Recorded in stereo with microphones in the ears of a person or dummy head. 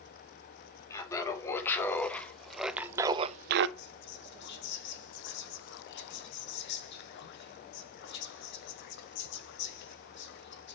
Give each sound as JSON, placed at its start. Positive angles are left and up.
{"t": 0.9, "sound": "laughter", "side_deg": 20, "distance_m": 2.0}
{"t": 3.8, "sound": "whispering", "side_deg": 60, "distance_m": 1.1}